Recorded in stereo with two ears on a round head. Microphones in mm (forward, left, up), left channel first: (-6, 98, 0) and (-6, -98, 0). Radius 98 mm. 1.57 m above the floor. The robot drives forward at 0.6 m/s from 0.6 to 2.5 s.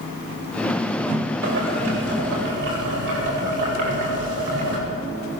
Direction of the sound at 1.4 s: 65° right (ahead or behind).